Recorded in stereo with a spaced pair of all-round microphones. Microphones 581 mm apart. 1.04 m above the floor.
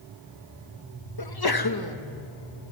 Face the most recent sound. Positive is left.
turn(degrees=40)  # may be behind; listen again after turning